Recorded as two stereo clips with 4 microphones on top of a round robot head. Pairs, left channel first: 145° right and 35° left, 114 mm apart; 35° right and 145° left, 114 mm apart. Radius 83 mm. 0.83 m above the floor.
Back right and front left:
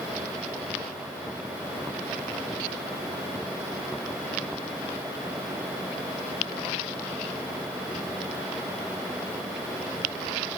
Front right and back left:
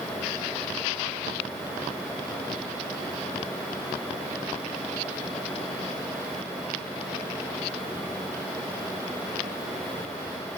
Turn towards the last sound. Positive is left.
No sound to turn to.